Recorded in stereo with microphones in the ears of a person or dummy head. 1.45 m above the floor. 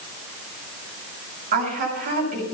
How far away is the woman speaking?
About 6.5 m.